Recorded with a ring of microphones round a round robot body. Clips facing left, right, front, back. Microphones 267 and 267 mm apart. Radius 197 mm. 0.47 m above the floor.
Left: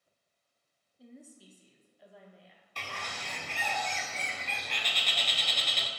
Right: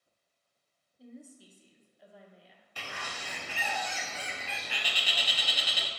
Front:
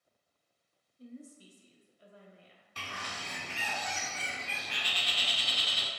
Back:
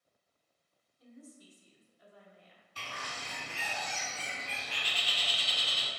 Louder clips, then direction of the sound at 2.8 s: Even, front 1 dB; 5° right.